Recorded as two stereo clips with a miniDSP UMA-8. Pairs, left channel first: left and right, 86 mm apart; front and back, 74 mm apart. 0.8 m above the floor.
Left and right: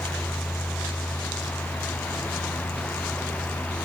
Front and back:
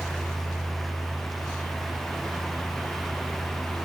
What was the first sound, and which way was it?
Only background noise.